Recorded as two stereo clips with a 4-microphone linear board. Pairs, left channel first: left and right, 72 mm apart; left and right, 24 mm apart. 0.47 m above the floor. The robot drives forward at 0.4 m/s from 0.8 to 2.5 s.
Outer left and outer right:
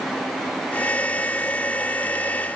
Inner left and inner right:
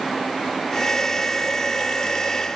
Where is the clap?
I don't hear a clap.